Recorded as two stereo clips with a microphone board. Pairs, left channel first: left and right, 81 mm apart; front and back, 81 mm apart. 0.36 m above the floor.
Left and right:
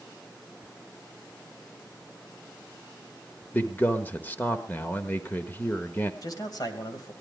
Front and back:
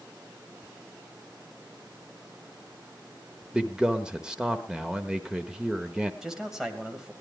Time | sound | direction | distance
3.5 | a man speaking | 110° left | 1.0 m
6.2 | a man speaking | 95° left | 2 m